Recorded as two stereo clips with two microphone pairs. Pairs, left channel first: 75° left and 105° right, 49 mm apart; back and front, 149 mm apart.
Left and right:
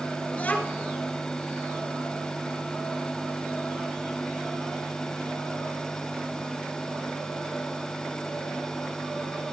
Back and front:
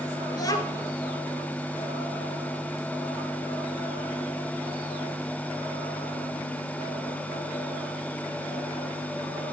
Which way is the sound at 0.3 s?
120° left.